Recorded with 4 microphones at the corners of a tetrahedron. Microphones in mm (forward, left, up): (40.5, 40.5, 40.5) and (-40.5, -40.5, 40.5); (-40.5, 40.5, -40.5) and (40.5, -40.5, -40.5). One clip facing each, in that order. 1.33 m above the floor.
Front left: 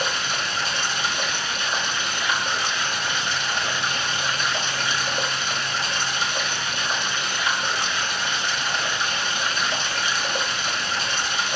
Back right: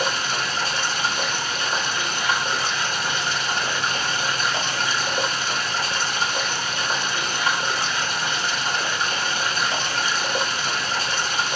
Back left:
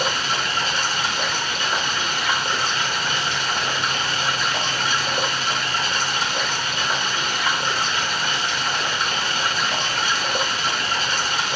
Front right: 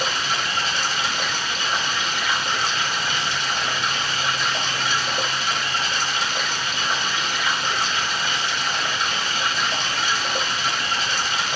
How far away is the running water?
About 3.5 m.